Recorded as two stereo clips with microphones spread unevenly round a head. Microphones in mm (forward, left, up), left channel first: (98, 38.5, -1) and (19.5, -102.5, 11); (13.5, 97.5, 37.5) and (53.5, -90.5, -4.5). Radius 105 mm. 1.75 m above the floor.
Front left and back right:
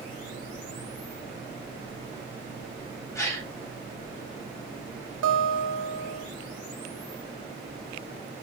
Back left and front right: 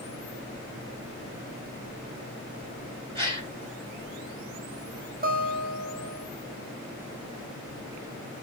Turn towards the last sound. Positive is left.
turn(degrees=-130)